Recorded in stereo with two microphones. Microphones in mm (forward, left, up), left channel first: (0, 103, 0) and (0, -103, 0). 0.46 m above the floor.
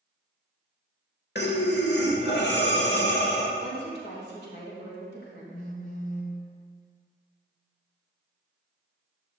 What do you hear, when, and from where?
1.4 s breathing: 55° left (ahead or behind), 0.9 m
3.6 s a woman speaking: 55° left (ahead or behind), 2 m
5.5 s a phone buzzing: 40° left (ahead or behind), 0.8 m